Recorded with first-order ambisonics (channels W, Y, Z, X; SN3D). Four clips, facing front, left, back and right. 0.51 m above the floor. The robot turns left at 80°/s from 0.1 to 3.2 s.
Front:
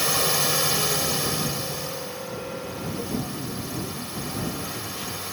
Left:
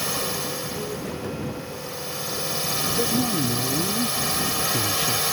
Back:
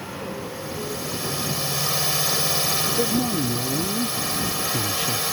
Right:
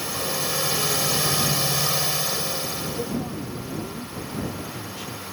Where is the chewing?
No chewing in this recording.